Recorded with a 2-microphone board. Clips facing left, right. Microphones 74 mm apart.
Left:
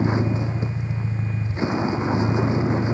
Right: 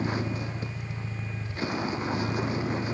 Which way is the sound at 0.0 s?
20° left (ahead or behind).